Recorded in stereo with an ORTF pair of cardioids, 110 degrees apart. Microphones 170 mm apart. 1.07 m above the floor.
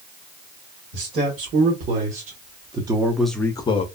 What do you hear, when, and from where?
0.9 s a man speaking: 60° right, 1.6 m; by 3.9 s 50° left, 0.6 m